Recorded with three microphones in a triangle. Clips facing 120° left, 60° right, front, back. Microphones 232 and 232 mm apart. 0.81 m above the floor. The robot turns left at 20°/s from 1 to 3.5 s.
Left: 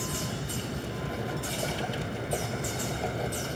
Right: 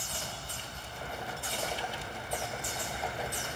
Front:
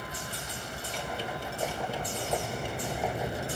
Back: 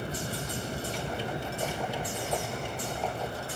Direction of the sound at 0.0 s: 120° left.